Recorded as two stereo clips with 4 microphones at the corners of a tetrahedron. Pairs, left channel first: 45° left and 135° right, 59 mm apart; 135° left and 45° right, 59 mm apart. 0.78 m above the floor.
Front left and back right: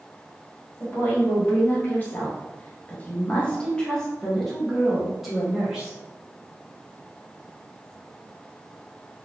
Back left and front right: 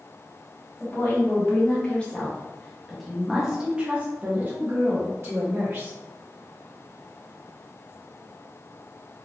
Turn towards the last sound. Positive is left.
turn(degrees=-55)